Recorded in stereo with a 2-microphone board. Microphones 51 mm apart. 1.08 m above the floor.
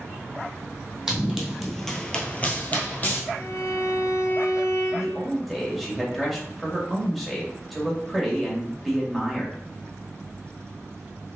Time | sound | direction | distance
1.1 | running footsteps | 10° right (ahead or behind) | 1.9 m
3.3 | a violin | 70° left (ahead or behind) | 2.5 m
4.9 | a man speaking | centre (ahead or behind) | 1.8 m